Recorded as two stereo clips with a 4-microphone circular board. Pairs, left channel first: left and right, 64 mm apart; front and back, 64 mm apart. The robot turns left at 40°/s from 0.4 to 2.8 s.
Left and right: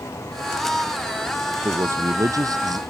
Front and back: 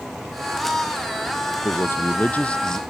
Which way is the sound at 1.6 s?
40° right.